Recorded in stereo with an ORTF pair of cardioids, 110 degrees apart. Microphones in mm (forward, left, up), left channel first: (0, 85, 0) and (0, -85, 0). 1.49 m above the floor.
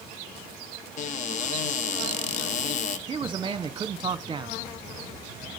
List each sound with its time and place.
1.0 s a cupboard door: 45° left, 1.2 m
3.1 s a man speaking: 30° right, 1.0 m